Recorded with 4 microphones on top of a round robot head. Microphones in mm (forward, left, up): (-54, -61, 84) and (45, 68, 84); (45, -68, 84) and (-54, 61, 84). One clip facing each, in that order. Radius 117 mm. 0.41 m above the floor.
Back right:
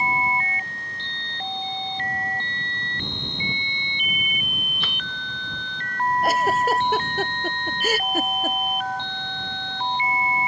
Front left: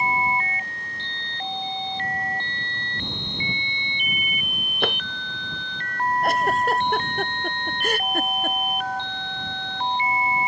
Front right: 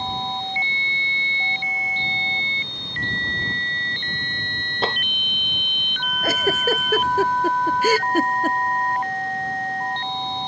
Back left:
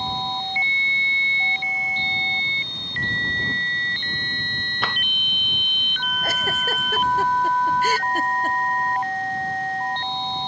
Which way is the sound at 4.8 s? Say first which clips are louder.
Front left 17 dB, front right 6 dB; 10° left.